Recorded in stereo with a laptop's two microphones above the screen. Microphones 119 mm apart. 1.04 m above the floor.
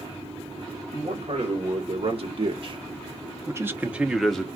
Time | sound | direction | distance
0.9 | a man speaking | 65° right (ahead or behind) | 2 m